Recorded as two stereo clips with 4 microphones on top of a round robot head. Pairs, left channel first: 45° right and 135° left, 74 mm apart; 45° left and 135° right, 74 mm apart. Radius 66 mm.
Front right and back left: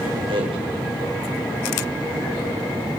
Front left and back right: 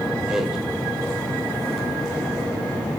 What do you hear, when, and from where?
0.3 s a man speaking: 145° left, 4.5 m